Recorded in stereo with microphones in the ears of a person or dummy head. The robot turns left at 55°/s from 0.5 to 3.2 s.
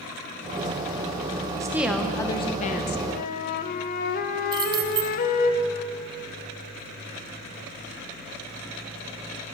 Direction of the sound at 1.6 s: 160° right.